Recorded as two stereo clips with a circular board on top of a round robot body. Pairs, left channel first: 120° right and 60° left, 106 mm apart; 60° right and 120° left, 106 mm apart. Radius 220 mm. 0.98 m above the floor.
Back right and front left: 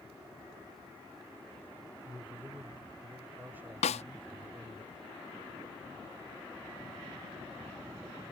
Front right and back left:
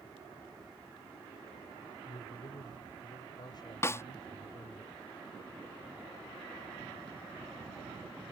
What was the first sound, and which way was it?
A man speaking, 15° right.